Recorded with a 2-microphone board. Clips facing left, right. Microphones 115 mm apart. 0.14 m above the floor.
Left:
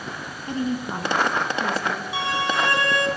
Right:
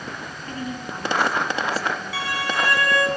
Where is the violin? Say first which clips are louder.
Left 2 dB; 25° left (ahead or behind), 2.5 m.